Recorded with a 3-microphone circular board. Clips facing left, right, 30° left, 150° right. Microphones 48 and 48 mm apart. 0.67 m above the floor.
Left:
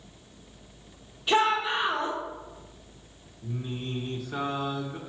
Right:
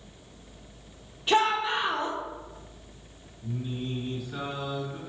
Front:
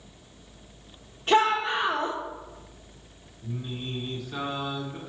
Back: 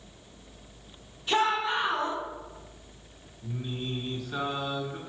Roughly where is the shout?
Ahead.